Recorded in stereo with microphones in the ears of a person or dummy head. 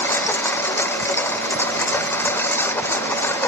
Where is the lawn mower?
15° left (ahead or behind).